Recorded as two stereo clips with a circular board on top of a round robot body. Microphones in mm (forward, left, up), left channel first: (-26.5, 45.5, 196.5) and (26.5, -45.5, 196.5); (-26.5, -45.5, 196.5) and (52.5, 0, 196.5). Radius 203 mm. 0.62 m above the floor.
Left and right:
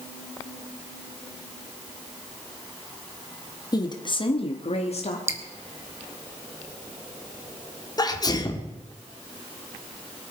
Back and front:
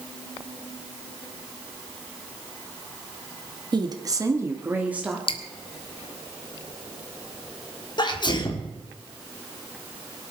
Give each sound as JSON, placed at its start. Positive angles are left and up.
{"t": 3.7, "sound": "a woman speaking", "azimuth_deg": 65, "distance_m": 1.9}
{"t": 5.3, "sound": "dripping", "azimuth_deg": -125, "distance_m": 1.7}
{"t": 8.0, "sound": "a sneeze", "azimuth_deg": 175, "distance_m": 2.0}